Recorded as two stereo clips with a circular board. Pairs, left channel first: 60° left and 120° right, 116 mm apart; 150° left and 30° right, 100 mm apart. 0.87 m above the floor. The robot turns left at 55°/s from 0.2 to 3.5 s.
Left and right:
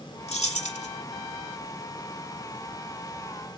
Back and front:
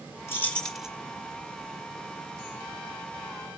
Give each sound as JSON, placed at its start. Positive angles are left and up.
{"t": 0.3, "sound": "keys jangling", "azimuth_deg": 90, "distance_m": 1.9}